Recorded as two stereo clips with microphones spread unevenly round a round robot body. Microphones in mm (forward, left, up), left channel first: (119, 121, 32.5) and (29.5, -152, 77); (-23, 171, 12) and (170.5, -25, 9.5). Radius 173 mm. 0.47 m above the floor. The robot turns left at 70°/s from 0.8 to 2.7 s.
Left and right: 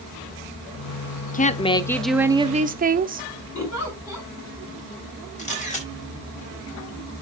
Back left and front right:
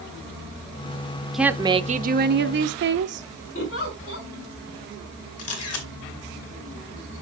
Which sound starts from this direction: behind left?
A camera shutter, at 5.4 s.